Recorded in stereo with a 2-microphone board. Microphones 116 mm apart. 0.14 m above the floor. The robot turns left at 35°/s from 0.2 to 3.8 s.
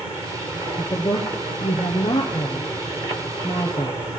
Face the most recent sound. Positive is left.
turn(degrees=15)  # may be behind; listen again after turning